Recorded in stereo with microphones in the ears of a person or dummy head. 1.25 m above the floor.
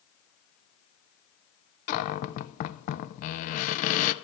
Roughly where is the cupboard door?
Left.